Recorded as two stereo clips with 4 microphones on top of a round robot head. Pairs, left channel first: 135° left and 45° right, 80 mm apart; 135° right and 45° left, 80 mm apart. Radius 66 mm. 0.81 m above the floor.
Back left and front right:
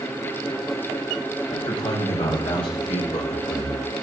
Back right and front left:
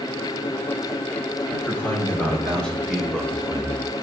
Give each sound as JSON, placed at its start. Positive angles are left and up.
{"t": 1.5, "sound": "a man speaking", "azimuth_deg": 150, "distance_m": 5.5}